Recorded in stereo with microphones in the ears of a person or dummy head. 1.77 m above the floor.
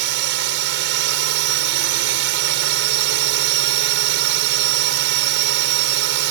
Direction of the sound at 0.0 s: 65° right (ahead or behind).